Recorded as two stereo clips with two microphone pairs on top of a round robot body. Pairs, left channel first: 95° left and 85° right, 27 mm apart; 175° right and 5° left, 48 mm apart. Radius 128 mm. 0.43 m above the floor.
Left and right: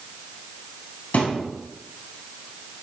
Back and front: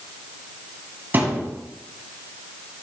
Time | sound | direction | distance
1.1 | a thud | 55° left | 2.5 m